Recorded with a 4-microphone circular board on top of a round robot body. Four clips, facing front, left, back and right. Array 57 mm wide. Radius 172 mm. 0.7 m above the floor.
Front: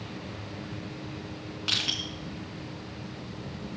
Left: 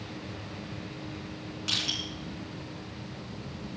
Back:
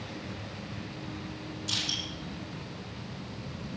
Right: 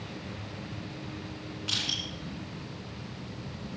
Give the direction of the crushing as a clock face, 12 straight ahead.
12 o'clock.